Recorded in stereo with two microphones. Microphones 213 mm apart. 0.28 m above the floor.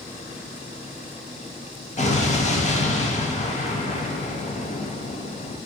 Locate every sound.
2.0 s an explosion: 35° left (ahead or behind), 0.5 m